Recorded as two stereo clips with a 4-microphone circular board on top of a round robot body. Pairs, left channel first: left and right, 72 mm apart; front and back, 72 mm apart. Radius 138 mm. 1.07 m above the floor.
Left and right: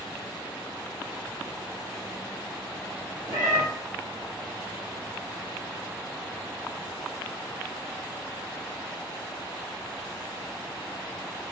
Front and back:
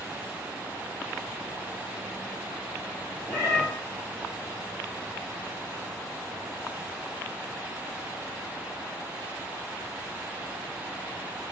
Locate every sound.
3.3 s a cat meowing: 80° right, 0.7 m